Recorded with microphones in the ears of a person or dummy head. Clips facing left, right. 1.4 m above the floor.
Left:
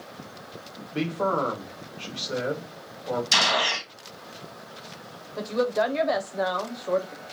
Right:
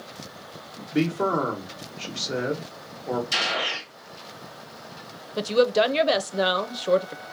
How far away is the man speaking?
About 1.8 m.